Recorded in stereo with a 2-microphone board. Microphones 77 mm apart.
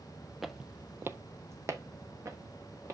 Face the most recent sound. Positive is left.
turn(degrees=-40)  # may be behind; listen again after turning